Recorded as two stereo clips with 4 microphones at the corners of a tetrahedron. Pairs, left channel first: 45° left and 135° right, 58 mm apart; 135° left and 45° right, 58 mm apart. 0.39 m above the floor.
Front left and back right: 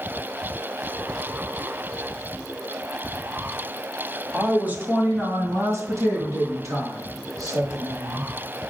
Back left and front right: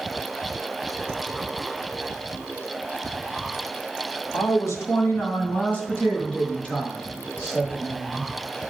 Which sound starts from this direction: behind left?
A woman speaking, at 4.3 s.